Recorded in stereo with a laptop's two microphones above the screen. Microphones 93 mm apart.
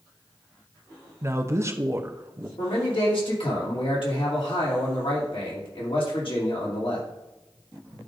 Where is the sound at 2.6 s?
70° left (ahead or behind), 2.5 m.